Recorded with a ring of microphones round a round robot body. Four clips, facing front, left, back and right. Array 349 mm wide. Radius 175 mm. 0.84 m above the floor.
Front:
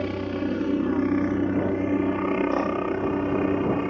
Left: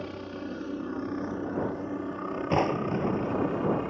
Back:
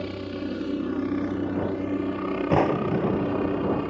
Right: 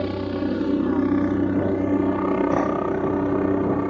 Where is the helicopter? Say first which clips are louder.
Right 12 dB, front 4 dB; 70° right; by 3.9 s 80° right.